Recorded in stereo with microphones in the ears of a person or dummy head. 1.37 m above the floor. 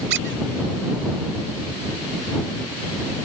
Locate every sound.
0.1 s a squeak: 75° right (ahead or behind)